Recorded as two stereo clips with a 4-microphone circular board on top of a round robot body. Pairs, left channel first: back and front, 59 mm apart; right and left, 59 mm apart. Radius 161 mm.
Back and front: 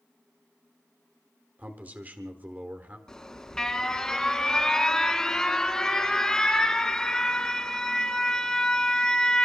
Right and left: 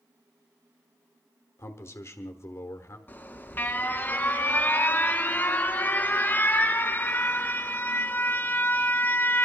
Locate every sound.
1.6 s a man speaking: 60° right, 1.4 m
3.1 s an alarm: 110° right, 2 m